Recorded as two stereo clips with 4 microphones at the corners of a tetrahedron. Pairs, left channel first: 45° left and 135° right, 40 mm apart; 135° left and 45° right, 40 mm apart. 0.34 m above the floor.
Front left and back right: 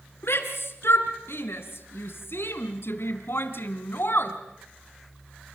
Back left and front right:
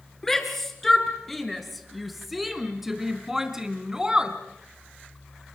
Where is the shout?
55° left, 4.5 m; by 4.4 s 20° left, 2.5 m.